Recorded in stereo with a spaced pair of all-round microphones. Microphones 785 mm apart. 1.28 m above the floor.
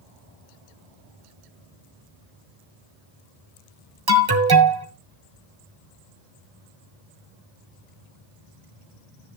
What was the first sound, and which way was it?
An alarm, 30° right (ahead or behind).